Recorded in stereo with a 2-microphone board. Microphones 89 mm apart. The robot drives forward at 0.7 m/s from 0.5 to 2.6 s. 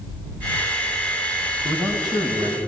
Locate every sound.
1.6 s a man speaking: 65° right (ahead or behind), 3.5 m; by 2.6 s 55° right (ahead or behind), 3.5 m